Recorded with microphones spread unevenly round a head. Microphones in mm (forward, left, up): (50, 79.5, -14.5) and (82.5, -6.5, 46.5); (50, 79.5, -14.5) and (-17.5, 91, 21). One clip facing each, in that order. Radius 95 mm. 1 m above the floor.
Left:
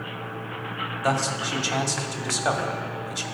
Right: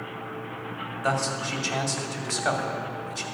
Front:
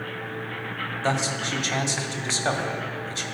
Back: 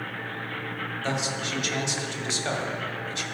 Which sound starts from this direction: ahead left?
A man speaking, at 1.0 s.